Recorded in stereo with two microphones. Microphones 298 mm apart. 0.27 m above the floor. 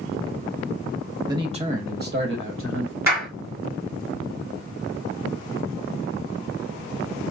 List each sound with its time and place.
1.3 s a man speaking: 15° right (ahead or behind), 1.0 m; by 3.0 s 50° right (ahead or behind), 1.5 m
3.1 s a clap: 65° right (ahead or behind), 3 m